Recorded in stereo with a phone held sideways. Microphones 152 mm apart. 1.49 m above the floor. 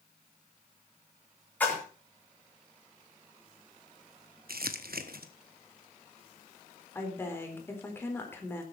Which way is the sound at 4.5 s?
85° right.